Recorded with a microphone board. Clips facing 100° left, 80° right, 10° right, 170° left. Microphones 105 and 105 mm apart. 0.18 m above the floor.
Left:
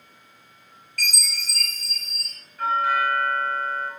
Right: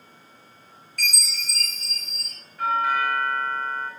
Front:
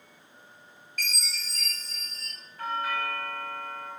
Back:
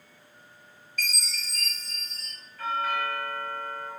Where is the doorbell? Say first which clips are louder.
Left 1 dB, back 2 dB; 5° right, 1.5 m.